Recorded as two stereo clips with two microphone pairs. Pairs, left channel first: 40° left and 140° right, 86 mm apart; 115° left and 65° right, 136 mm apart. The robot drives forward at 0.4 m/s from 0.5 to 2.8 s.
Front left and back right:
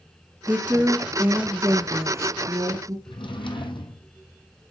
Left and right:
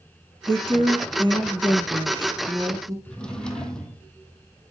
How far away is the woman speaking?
About 1.4 m.